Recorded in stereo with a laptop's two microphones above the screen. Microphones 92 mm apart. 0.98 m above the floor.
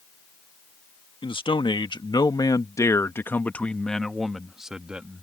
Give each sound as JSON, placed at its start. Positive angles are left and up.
{"t": 1.2, "sound": "a man speaking", "side_deg": 65}